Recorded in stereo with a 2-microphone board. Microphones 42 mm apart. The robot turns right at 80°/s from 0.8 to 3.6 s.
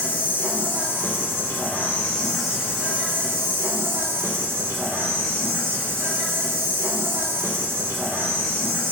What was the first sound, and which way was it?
An insect, 55° left.